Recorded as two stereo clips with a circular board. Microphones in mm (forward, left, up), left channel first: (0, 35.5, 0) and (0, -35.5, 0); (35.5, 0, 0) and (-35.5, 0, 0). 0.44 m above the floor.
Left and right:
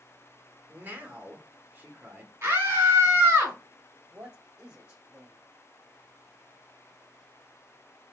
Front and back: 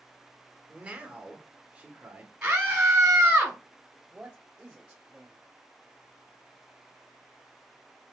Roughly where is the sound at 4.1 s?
Behind right.